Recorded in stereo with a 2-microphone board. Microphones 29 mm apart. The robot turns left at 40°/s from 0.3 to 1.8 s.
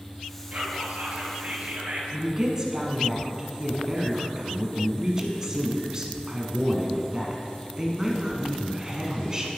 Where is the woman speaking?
25° right (ahead or behind), 1.3 m.